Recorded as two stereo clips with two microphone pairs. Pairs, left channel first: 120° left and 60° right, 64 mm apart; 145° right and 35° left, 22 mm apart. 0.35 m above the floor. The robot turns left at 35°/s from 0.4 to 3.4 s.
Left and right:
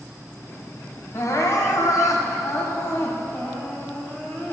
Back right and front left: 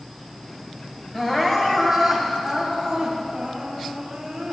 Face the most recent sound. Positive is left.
turn(degrees=70)